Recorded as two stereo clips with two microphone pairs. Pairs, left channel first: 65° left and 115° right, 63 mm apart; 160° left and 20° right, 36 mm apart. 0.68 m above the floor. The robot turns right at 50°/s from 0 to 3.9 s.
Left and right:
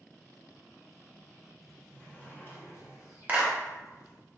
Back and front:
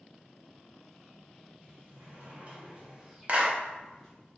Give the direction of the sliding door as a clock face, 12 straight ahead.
1 o'clock.